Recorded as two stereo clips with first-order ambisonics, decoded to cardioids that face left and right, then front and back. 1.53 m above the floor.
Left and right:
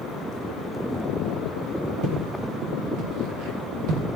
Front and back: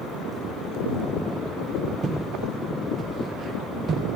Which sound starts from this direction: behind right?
Footsteps, at 2.0 s.